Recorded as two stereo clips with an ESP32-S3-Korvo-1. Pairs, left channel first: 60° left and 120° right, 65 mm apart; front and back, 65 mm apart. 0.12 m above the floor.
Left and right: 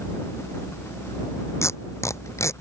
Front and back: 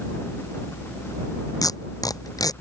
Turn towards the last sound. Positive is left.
turn(degrees=20)